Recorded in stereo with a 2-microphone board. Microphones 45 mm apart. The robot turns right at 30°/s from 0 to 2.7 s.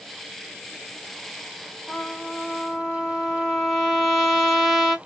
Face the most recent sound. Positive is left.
turn(degrees=5)  # may be behind; listen again after turning